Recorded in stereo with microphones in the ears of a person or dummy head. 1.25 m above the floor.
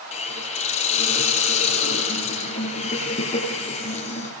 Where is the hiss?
35° left (ahead or behind), 7.5 m.